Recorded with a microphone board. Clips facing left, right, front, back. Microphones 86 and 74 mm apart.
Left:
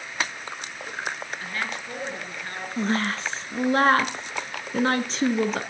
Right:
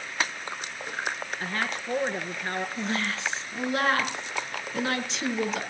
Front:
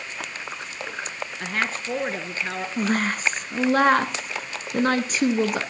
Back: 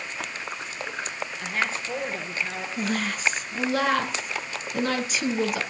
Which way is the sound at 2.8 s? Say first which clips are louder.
Left 5 dB, front 4 dB; 40° left.